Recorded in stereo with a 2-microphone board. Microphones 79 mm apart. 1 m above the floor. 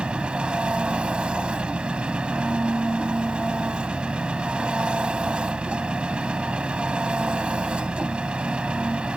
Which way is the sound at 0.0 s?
15° right (ahead or behind).